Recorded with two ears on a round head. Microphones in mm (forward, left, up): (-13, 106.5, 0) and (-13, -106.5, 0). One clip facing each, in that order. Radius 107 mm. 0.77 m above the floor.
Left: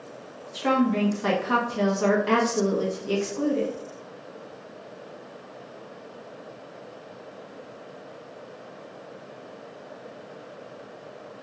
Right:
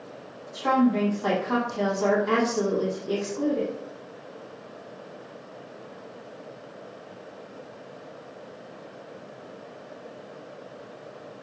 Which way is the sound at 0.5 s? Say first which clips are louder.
Right 1 dB; 35° left (ahead or behind).